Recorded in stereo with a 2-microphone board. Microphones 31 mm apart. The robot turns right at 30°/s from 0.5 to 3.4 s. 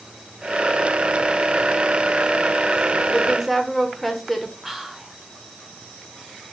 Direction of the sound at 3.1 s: 5° right (ahead or behind).